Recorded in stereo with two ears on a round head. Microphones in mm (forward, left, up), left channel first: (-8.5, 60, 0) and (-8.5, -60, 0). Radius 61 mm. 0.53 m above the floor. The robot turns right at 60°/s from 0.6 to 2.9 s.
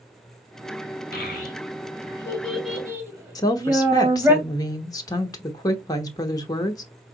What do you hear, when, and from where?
1.1 s a child speaking: 75° left (ahead or behind), 2 m; by 4.3 s 15° right (ahead or behind), 2 m
3.4 s a woman speaking: 30° left (ahead or behind), 1.0 m